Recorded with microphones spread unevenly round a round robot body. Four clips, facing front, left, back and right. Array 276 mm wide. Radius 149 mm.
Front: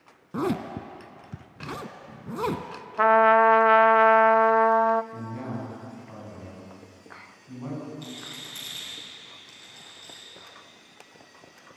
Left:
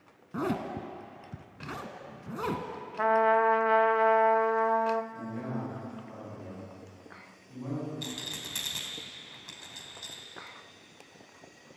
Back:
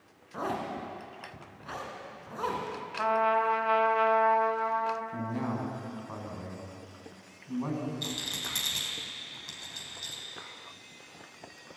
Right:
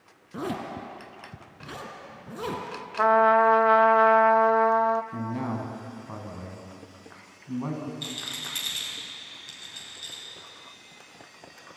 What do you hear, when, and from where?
0.3 s a zipper: 10° left, 1.3 m
3.0 s a trumpet: 40° right, 0.6 m
5.1 s a man speaking: 90° right, 5.5 m
8.0 s a rattle: 145° left, 3 m